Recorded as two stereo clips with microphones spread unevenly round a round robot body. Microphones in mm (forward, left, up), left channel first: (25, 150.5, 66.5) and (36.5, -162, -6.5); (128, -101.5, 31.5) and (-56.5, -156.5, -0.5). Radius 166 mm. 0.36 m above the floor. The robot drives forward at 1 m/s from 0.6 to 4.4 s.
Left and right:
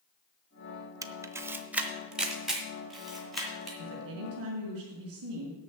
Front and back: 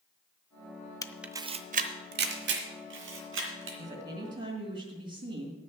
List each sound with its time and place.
1.0 s a camera shutter: 55° right, 0.6 m; by 3.7 s 175° right, 2.5 m
3.8 s a woman speaking: 110° right, 2.5 m; by 5.6 s 120° right, 2.5 m